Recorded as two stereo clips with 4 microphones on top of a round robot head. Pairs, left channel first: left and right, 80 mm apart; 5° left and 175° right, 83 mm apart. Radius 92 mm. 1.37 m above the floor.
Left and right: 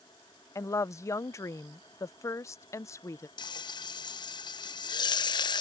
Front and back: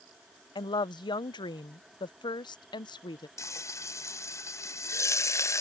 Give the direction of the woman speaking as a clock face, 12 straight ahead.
11 o'clock.